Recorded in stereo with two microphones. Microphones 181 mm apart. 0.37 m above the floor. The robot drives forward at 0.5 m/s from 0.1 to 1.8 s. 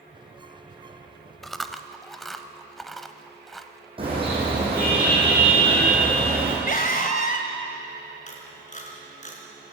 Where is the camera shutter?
40° left (ahead or behind), 4 m.